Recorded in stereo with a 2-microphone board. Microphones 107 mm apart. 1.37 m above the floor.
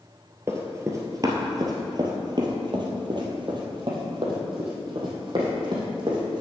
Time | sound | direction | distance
0.5 | running footsteps | 25° right (ahead or behind) | 1.6 m